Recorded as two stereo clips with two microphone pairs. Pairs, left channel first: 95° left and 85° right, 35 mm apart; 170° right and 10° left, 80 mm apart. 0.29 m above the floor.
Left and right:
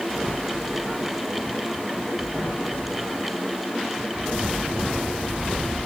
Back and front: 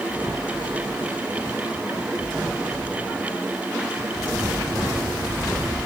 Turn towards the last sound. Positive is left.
No sound to turn to.